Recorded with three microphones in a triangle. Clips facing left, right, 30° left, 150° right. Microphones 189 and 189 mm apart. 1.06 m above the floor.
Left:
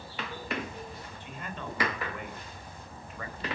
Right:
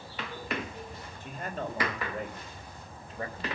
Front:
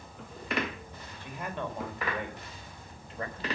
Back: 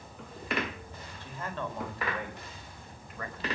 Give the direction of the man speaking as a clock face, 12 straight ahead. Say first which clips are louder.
Right 6 dB, front 1 dB; 2 o'clock.